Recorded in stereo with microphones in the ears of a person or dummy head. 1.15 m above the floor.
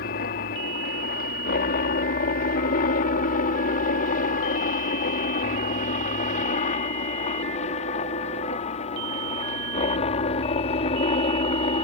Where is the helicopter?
45° left (ahead or behind); by 11.8 s 25° left (ahead or behind).